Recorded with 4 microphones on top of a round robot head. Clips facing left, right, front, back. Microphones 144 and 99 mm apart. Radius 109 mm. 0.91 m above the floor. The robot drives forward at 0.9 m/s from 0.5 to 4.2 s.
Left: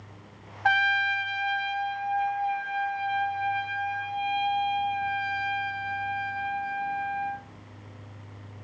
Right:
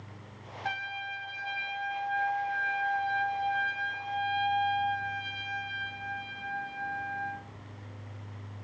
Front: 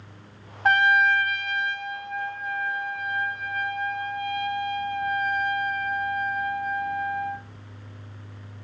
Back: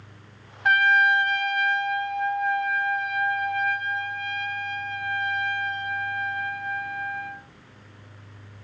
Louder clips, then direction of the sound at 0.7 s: Left 12 dB, even; 55° left.